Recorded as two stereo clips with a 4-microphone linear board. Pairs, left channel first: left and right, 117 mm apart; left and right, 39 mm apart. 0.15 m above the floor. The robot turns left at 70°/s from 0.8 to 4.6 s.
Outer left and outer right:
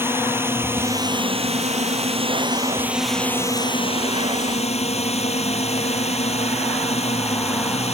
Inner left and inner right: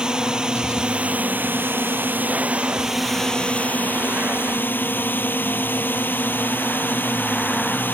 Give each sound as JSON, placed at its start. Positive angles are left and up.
{"t": 0.0, "sound": "a drone", "azimuth_deg": -20}